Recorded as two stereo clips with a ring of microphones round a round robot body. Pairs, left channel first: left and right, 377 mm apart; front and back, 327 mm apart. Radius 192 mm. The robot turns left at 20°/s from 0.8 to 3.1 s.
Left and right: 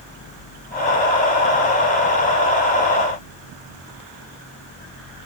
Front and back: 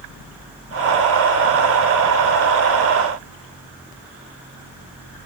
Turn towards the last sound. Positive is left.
No sound to turn to.